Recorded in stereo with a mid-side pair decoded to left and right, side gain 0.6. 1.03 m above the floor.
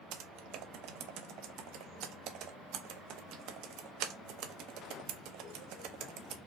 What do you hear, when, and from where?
0.1 s typing on a keyboard: 70° right, 0.7 m